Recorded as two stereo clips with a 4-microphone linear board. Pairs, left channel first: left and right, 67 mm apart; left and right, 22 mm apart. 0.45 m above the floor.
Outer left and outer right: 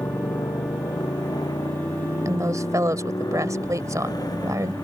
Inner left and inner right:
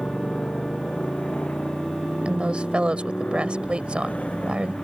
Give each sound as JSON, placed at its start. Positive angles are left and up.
{"t": 0.0, "sound": "a motorcycle", "side_deg": 90}
{"t": 2.2, "sound": "a woman speaking", "side_deg": -55}